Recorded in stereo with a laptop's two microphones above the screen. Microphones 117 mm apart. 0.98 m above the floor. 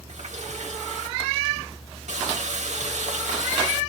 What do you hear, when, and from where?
0.1 s a running tap: 90° right, 3 m